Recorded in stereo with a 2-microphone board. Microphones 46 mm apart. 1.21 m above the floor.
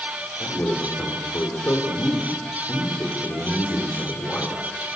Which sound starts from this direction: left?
A man speaking, at 0.4 s.